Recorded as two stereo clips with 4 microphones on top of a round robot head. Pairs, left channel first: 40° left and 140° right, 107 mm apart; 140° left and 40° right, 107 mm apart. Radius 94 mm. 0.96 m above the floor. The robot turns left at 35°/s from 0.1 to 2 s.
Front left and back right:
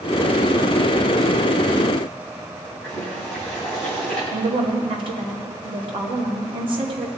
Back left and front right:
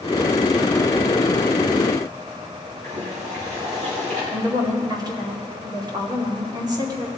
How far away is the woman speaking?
About 2.5 m.